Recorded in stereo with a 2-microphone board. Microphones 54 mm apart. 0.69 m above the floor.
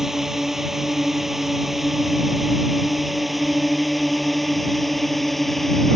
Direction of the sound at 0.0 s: 5° right (ahead or behind).